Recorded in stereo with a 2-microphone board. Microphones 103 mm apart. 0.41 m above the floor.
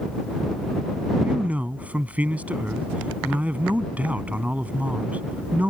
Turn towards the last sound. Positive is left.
turn(degrees=-15)  # may be behind; listen again after turning